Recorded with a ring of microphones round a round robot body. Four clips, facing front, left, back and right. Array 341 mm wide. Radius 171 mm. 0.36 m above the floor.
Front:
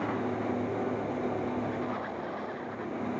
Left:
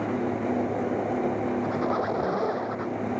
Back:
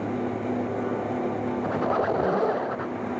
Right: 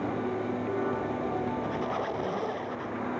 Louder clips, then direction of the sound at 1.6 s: Left 5 dB, back 9 dB; 165° left.